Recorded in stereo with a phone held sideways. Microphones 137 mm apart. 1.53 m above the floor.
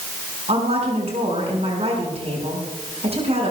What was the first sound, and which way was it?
A woman speaking, 50° right (ahead or behind).